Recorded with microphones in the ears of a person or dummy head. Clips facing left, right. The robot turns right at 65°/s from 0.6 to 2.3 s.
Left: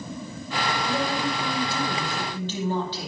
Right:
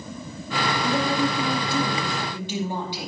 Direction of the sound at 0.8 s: 105° right.